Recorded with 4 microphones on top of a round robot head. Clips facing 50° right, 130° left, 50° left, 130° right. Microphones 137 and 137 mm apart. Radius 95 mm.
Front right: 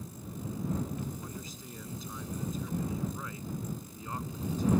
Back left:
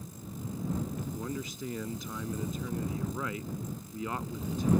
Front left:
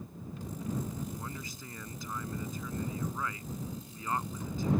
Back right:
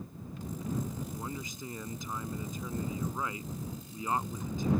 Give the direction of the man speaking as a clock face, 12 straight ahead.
7 o'clock.